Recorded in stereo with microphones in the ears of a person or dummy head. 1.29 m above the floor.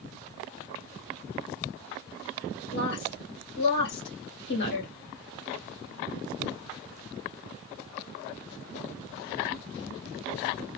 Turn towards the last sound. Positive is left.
turn(degrees=65)  # may be behind; listen again after turning